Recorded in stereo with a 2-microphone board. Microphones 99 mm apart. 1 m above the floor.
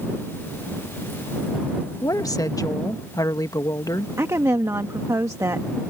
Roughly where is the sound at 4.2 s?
Right.